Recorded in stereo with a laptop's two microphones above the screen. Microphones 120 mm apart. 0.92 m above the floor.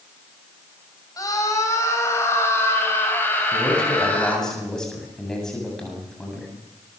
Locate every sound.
1.2 s a scream: 30° left (ahead or behind), 5.5 m; by 4.5 s 10° left (ahead or behind), 6.5 m
3.5 s a man speaking: 5° left (ahead or behind), 8 m